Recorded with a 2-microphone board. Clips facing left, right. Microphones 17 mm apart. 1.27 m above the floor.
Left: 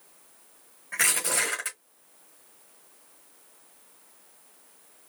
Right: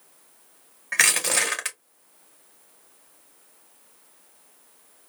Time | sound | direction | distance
0.9 | crushing | 60° right (ahead or behind) | 1.8 m